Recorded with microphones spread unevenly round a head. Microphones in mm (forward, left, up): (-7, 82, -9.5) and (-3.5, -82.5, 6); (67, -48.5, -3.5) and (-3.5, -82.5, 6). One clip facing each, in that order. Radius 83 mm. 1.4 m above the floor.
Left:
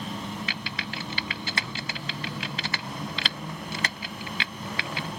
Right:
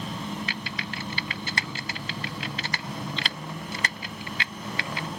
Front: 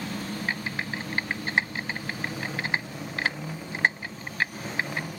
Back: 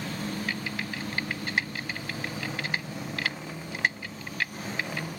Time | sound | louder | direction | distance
0.5 | typing on a keyboard | right 1 dB, front 2 dB | 100° left | ?